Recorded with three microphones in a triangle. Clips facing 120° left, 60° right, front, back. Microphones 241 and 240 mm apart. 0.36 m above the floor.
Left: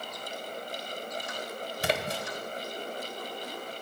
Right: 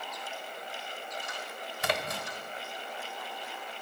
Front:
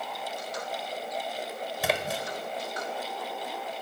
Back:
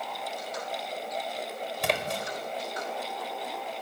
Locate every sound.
1.8 s a splash: 85° left, 1.1 m